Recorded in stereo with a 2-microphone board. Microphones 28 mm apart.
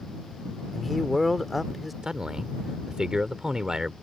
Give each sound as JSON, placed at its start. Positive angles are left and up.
{"t": 0.7, "sound": "a man speaking", "side_deg": 0}
{"t": 2.0, "sound": "a man speaking", "side_deg": -20}